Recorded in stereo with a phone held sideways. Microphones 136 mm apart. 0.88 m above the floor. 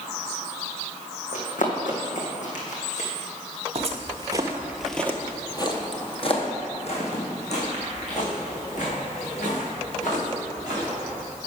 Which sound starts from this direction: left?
Running footsteps, at 1.3 s.